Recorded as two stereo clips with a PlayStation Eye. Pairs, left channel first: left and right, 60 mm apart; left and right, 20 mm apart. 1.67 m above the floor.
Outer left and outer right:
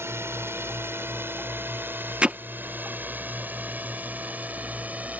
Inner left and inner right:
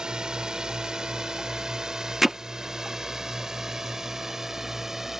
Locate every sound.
0.0 s a drone: 45° right (ahead or behind); by 5.2 s 25° right (ahead or behind)
2.2 s hammering: 20° right (ahead or behind)